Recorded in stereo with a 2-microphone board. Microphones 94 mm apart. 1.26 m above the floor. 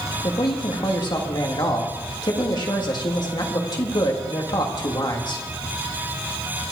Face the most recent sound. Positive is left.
turn(degrees=45)  # may be behind; listen again after turning